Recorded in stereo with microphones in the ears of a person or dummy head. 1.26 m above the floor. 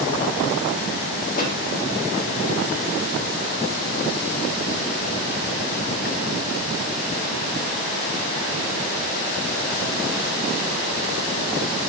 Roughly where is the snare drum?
Left.